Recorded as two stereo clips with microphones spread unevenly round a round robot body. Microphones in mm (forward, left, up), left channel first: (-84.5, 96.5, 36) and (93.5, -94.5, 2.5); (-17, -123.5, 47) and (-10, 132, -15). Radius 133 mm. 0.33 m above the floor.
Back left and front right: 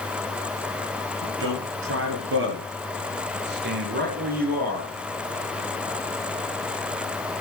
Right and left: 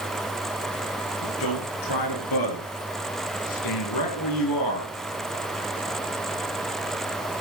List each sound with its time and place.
1.2 s a man speaking: 85° right, 7.5 m; by 4.9 s 105° right, 6.5 m